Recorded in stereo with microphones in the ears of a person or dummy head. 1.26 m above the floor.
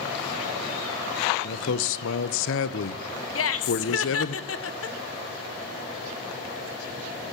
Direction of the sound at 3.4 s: 70° left (ahead or behind).